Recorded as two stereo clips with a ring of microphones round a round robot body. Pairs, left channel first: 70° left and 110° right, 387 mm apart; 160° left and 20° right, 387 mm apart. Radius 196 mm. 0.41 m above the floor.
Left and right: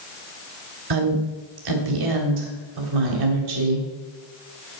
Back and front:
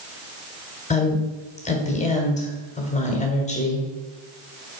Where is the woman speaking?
130° right, 2 m.